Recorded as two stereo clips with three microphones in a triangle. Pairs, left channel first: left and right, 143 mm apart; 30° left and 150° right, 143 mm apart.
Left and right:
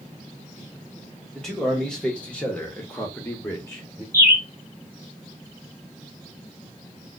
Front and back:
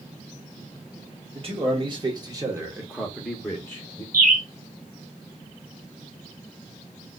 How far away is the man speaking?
About 1.4 m.